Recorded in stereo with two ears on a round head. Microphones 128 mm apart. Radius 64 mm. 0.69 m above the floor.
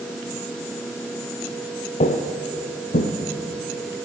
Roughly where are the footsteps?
Left.